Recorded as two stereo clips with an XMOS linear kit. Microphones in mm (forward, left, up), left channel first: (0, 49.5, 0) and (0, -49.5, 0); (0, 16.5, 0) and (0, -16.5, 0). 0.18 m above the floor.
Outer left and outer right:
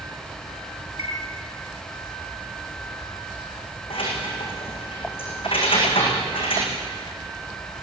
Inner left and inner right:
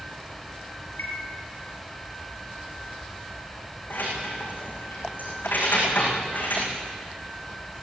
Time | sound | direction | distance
1.0 | a chime | 80° left | 5 m
3.9 | keys jangling | 60° left (ahead or behind) | 8 m